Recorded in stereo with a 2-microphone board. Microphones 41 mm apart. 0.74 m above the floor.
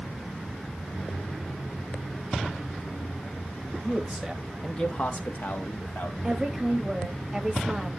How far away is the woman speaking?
About 0.8 m.